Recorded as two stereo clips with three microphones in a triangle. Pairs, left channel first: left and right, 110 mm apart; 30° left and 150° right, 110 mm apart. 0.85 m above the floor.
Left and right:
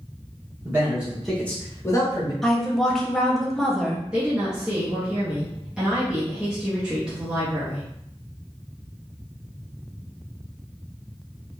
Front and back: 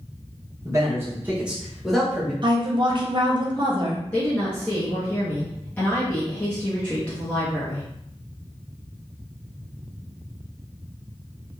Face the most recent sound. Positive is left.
turn(degrees=-15)